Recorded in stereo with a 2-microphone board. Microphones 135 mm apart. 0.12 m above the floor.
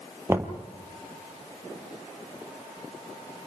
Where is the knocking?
20° right (ahead or behind), 2 m.